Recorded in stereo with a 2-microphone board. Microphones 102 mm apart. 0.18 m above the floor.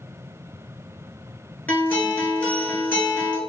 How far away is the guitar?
About 0.7 m.